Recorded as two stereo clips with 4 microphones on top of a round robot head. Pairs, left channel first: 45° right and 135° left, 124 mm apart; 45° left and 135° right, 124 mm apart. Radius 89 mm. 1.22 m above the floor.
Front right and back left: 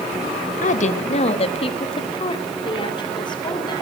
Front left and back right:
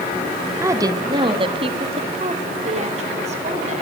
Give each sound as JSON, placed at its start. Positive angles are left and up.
{"t": 0.6, "sound": "a woman speaking", "azimuth_deg": -65, "distance_m": 1.5}